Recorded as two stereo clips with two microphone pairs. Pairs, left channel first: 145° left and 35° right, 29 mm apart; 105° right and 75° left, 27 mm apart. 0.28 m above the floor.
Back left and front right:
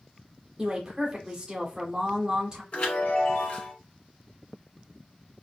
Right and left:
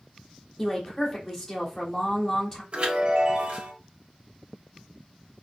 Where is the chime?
125° left, 2.5 m.